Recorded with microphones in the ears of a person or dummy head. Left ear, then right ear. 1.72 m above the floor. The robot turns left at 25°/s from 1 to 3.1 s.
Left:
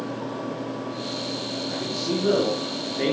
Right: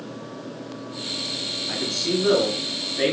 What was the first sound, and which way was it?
A man speaking, 85° right.